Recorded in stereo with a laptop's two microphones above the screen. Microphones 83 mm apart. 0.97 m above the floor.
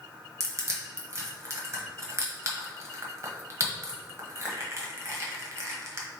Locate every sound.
0.4 s crushing: 40° right (ahead or behind), 0.9 m